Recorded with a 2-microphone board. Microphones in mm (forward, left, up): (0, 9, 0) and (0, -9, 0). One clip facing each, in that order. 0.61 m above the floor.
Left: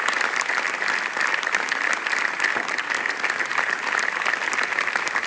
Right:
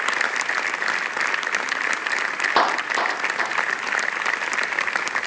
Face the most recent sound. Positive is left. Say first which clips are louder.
# right 5 dB
turn(degrees=-75)  # may be behind; listen again after turning